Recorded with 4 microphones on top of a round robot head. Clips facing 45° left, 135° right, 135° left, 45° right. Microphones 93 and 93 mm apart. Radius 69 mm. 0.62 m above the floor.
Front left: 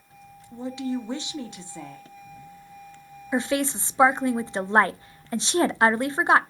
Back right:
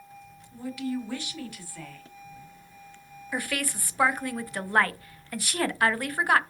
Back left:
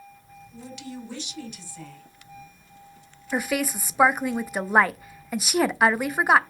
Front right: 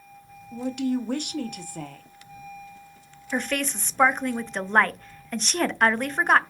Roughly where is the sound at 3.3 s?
Ahead left.